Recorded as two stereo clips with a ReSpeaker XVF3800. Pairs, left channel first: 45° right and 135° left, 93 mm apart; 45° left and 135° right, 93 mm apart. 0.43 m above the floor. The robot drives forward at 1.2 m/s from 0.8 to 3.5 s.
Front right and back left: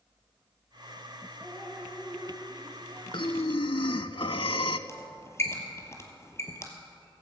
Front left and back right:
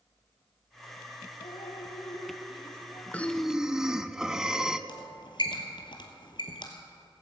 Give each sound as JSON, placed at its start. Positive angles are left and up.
{"t": 1.4, "sound": "dripping", "azimuth_deg": 50, "distance_m": 3.0}
{"t": 3.1, "sound": "breathing", "azimuth_deg": -25, "distance_m": 0.8}
{"t": 4.9, "sound": "a squeak", "azimuth_deg": 15, "distance_m": 1.5}